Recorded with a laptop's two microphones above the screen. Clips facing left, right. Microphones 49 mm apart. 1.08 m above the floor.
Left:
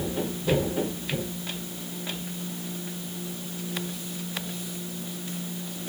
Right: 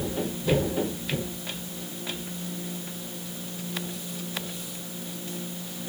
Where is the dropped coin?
I don't hear a dropped coin.